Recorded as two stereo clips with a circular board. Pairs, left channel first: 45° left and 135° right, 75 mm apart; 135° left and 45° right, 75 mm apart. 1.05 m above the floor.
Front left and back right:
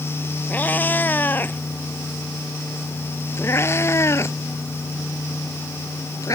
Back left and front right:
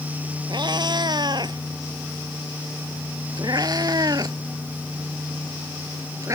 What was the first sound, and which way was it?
A cat meowing, 25° right.